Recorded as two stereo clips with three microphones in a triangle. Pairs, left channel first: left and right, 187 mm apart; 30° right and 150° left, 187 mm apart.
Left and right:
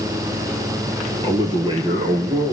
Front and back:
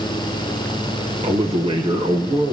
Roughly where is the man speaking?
Behind right.